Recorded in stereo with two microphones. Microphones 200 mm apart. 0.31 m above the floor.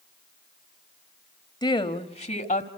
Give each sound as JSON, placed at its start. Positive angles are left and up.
{"t": 1.6, "sound": "a woman speaking", "side_deg": 20, "distance_m": 1.4}